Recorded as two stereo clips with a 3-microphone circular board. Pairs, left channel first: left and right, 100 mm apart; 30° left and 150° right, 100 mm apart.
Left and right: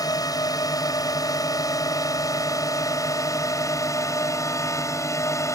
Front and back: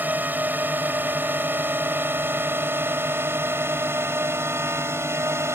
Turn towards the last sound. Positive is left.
turn(degrees=145)